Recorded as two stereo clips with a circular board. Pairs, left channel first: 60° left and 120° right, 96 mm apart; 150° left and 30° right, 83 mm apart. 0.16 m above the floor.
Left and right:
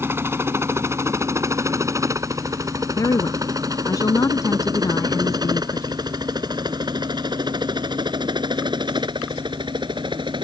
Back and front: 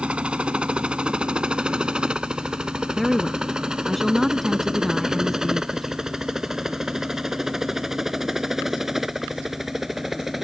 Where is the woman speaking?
60° left.